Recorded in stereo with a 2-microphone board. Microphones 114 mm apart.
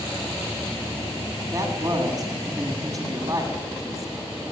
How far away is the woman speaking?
About 8 m.